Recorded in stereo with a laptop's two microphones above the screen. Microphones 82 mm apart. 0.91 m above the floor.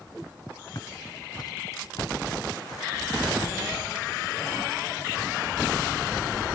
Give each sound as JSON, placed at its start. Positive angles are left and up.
{"t": 0.8, "sound": "footsteps", "side_deg": 50}